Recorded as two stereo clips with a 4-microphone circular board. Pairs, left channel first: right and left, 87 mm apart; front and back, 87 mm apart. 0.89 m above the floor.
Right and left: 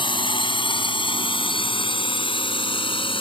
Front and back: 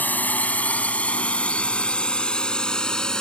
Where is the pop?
No pop in this recording.